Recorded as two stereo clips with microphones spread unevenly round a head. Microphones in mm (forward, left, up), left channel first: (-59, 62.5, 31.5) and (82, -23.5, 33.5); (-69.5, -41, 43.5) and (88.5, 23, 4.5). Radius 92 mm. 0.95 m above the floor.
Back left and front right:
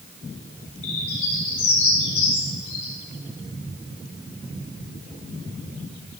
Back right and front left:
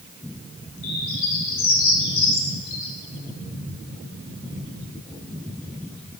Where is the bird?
155° right, 2.5 m.